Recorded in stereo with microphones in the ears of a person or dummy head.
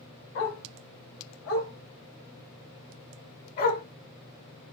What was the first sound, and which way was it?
A dog barking, 75° left (ahead or behind).